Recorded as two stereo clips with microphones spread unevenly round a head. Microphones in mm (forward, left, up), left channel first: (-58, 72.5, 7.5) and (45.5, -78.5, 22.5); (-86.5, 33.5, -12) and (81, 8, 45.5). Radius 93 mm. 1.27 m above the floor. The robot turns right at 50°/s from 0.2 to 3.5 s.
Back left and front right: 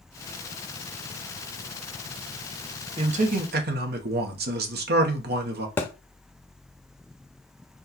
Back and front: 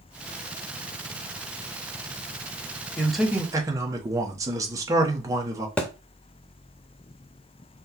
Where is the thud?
50° left, 0.7 m.